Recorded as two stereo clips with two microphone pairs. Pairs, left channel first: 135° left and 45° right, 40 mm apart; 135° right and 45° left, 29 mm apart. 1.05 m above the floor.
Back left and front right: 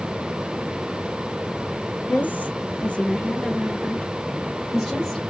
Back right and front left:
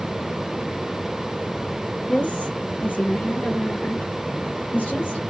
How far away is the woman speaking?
About 0.9 m.